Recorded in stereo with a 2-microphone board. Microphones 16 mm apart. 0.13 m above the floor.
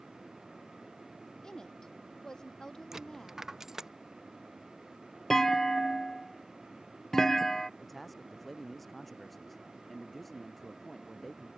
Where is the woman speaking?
40° left (ahead or behind).